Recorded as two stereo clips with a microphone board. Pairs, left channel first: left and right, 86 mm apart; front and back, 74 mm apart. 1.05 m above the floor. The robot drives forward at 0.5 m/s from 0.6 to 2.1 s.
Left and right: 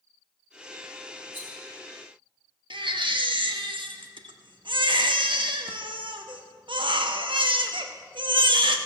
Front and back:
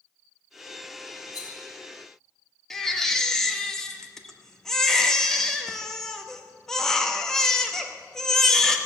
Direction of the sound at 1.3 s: 30° right.